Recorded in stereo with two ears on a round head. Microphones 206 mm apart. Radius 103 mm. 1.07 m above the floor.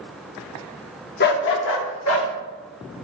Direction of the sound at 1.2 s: 45° left (ahead or behind).